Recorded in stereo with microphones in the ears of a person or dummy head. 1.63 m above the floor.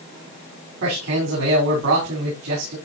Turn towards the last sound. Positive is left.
turn(degrees=-70)  # may be behind; listen again after turning